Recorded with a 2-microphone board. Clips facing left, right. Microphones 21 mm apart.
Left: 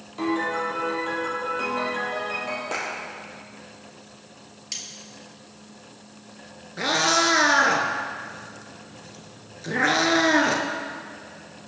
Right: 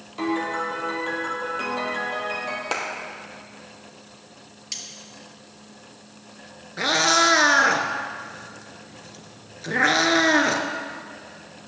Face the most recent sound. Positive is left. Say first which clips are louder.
# right 2 dB
turn(degrees=-15)  # may be behind; listen again after turning